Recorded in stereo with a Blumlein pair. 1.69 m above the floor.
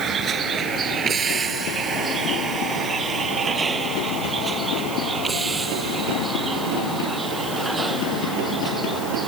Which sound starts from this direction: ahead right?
A vehicle, at 0.0 s.